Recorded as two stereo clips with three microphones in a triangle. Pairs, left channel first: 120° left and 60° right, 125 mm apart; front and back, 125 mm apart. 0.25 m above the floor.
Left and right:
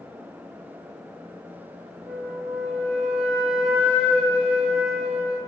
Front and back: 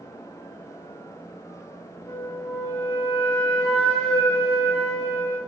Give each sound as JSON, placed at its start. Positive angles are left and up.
{"t": 2.1, "sound": "a flute", "azimuth_deg": -35, "distance_m": 1.2}